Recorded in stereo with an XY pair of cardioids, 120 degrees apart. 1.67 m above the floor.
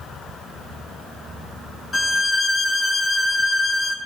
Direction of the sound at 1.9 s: 30° left.